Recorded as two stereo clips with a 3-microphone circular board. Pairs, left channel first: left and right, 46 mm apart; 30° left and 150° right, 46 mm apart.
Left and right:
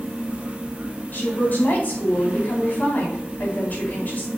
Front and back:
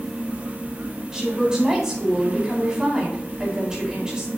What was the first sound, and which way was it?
A woman speaking, 135° left.